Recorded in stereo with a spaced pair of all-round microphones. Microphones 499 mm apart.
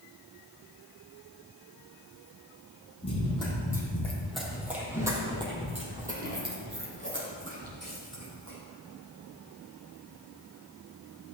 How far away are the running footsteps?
About 3.5 m.